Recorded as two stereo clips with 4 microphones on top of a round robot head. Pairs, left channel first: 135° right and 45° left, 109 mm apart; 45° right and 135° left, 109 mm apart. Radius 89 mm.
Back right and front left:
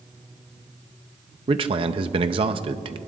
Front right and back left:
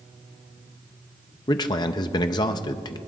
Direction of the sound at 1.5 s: 5° left.